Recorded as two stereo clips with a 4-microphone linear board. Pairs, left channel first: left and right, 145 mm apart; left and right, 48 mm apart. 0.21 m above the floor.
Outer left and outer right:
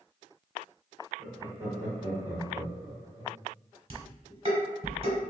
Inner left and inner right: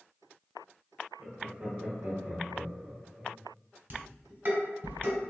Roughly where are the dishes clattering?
Right.